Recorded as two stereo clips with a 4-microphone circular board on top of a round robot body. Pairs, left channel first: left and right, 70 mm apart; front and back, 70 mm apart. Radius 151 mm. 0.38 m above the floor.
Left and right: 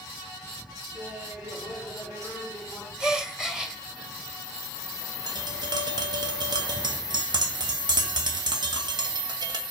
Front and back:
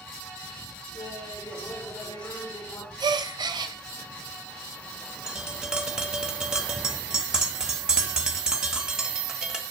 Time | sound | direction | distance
0.9 | laughter | 20° right | 8 m
3.0 | a gasp | 170° right | 1.1 m
5.3 | tapping | 100° right | 2 m